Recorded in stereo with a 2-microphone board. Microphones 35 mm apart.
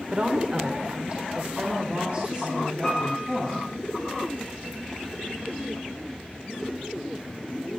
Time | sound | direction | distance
0.1 | a woman speaking | 35° right (ahead or behind) | 1.5 m
2.8 | a piano | centre (ahead or behind) | 7.5 m